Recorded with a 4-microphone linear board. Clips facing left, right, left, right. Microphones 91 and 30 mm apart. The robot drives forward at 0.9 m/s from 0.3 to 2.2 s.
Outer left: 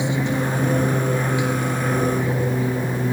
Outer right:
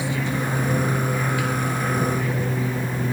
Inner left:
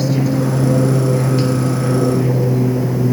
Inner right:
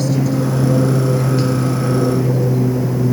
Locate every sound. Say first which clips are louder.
0.0 s an aircraft: outer left 3 dB, inner left 1 dB; 20° left (ahead or behind)